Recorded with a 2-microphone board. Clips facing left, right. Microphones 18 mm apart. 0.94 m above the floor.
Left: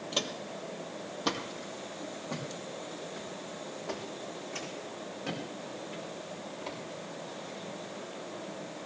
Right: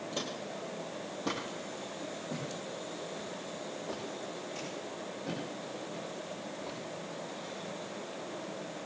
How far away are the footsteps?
About 1.6 m.